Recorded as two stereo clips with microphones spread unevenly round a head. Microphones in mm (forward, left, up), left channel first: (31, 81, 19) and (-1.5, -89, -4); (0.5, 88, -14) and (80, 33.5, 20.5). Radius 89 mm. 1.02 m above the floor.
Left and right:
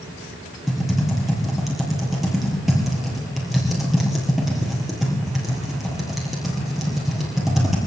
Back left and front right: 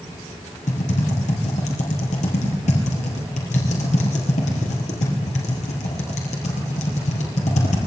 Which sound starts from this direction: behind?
Typing on a keyboard, at 0.7 s.